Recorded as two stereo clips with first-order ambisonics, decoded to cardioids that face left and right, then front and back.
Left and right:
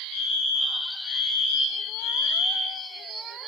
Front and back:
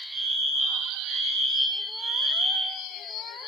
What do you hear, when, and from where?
0.1 s a fire alarm: 110° left, 10 m